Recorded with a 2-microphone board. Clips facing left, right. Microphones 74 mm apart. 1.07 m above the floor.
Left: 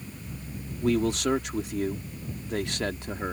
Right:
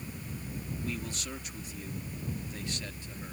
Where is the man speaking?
80° left.